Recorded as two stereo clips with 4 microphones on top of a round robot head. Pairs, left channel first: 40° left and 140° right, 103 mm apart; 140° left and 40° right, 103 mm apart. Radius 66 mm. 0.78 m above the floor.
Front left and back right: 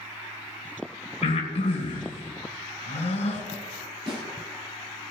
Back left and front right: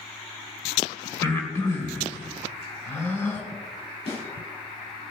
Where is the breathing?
70° left, 3 m.